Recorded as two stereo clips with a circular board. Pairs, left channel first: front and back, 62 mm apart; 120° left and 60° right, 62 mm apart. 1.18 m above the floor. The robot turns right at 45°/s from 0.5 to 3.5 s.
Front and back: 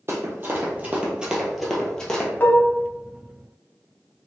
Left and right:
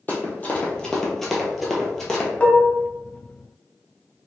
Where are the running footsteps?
160° left, 1.6 m; by 2.3 s 60° left, 1.3 m.